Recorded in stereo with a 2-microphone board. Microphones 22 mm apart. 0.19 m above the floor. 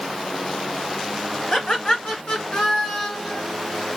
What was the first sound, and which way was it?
Laughter, 40° left (ahead or behind).